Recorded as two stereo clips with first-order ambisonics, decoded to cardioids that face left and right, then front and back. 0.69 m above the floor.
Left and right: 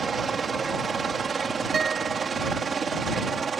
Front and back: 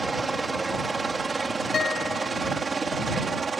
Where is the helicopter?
120° right; by 3.6 s 125° right.